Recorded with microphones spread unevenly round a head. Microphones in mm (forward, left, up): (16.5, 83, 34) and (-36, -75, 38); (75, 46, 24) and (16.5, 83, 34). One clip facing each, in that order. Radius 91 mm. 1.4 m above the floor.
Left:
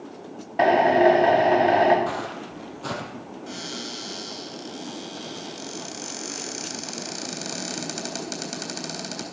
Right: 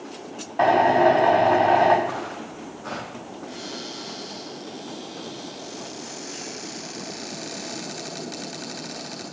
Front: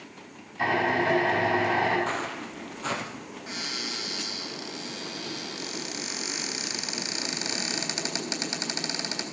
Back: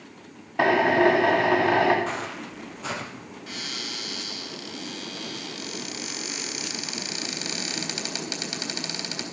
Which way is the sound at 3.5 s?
35° left.